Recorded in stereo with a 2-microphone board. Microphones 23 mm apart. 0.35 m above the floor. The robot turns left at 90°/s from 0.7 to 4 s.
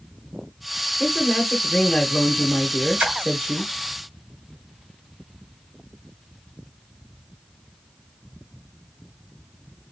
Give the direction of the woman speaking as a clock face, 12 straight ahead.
6 o'clock.